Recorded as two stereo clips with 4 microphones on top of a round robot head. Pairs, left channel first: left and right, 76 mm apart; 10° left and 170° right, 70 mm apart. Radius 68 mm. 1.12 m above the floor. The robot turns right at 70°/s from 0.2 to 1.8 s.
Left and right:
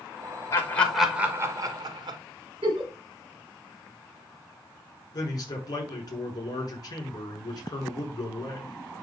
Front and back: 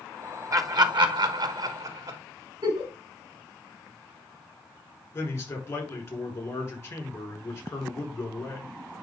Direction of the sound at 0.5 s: 145° left.